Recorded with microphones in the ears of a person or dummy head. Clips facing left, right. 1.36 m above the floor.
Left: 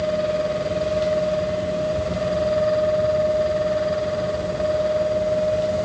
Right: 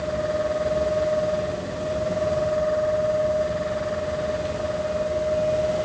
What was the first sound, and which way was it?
Only background noise.